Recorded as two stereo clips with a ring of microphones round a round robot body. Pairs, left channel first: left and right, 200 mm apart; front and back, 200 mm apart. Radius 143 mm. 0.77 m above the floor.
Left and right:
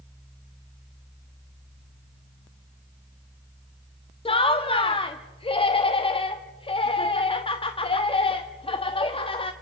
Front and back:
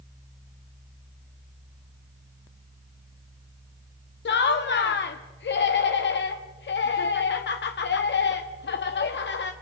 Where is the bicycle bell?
No bicycle bell in this recording.